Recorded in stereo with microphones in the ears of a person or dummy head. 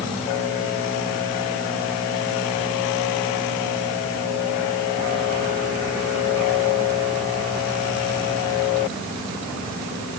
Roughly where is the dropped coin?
No dropped coin in this recording.